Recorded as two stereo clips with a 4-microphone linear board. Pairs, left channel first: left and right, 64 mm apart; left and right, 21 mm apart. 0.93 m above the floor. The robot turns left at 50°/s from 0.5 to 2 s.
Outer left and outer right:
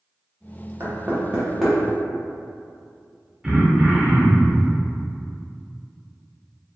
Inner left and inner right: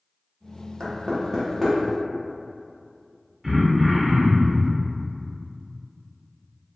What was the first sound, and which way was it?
Knocking, 40° right (ahead or behind).